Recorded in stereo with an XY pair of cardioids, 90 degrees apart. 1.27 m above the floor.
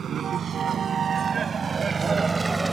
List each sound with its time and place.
0.0 s a vehicle: 65° right; by 2.7 s 25° right